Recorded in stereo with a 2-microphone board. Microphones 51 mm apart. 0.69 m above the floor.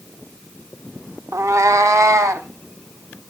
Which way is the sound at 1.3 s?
85° right.